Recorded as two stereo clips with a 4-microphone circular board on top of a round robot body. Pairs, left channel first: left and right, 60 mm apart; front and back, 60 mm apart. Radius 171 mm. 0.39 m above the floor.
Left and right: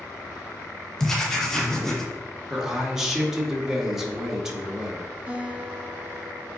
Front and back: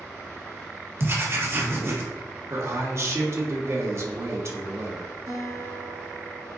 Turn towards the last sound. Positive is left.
turn(degrees=-160)